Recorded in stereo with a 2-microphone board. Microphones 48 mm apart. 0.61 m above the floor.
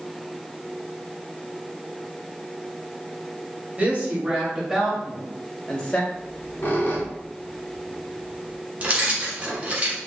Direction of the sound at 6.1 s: 45° left (ahead or behind).